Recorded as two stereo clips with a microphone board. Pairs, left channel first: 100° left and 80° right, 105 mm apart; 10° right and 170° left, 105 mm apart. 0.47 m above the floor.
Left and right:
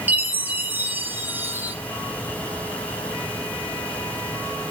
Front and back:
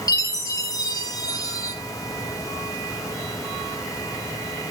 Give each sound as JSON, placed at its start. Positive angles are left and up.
{"t": 0.1, "sound": "a chime", "azimuth_deg": -25, "distance_m": 0.6}